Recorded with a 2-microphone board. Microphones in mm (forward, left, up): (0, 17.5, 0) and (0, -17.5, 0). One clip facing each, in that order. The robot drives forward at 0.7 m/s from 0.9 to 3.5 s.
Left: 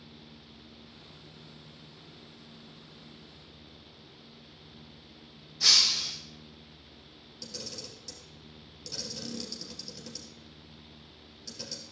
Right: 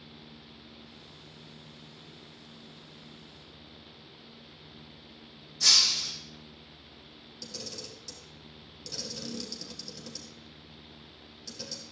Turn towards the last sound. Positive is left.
turn(degrees=5)  # may be behind; listen again after turning